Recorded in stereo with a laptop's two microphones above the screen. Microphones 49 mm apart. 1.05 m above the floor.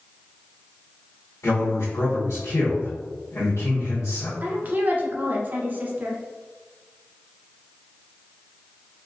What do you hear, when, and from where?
1.4 s a man speaking: 70° left (ahead or behind), 0.8 m
4.4 s a woman speaking: 35° right (ahead or behind), 0.7 m